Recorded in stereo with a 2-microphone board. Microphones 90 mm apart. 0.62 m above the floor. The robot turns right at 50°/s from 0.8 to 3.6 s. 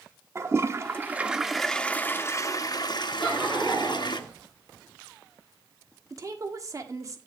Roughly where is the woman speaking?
Right.